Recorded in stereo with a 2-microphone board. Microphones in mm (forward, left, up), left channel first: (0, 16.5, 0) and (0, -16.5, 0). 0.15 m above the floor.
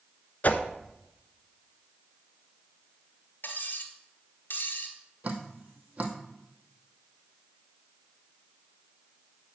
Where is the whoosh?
50° left (ahead or behind), 0.7 m.